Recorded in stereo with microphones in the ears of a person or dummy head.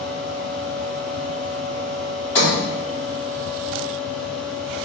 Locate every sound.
0.0 s a fan: 5° left (ahead or behind), 5 m
2.4 s a sliding door: 15° left (ahead or behind), 5 m